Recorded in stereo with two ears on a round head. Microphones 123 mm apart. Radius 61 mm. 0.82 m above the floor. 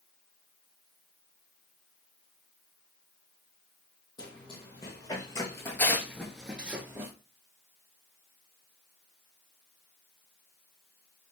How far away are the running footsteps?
About 1.7 m.